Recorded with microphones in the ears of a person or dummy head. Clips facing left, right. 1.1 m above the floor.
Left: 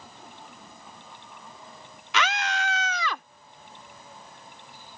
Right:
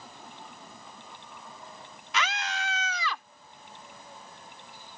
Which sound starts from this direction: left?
A scream, at 2.1 s.